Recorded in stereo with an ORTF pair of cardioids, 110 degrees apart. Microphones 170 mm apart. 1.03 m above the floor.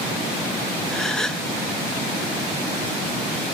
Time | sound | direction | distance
0.9 | a gasp | 5° left | 0.7 m